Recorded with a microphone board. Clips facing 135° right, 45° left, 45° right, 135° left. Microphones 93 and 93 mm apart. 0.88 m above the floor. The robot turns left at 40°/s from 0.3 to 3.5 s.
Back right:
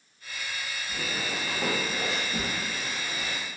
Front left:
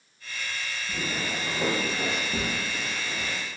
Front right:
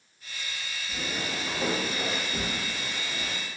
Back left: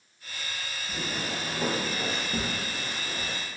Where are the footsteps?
95° left, 2.0 m; by 3.4 s 100° left, 1.7 m.